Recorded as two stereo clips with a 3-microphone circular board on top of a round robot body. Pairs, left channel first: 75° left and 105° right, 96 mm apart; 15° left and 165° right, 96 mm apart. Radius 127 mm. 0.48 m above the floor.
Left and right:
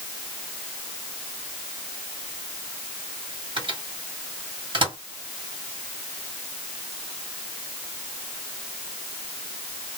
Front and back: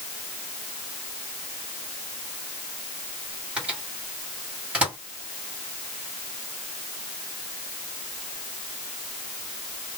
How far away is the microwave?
About 2 m.